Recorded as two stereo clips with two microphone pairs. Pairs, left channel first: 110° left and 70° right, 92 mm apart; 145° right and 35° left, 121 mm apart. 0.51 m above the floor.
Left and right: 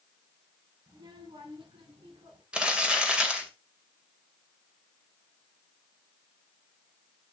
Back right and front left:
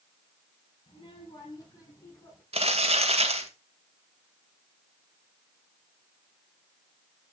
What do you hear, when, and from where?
0.9 s a child speaking: 105° right, 4 m; by 2.4 s 75° right, 5 m
2.5 s crumpling: 10° left, 2 m